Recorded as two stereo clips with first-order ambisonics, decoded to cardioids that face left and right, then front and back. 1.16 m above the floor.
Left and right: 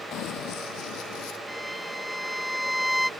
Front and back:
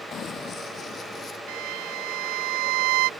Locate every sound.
0.1 s running footsteps: 55° left; by 1.4 s 65° left
1.5 s a violin: straight behind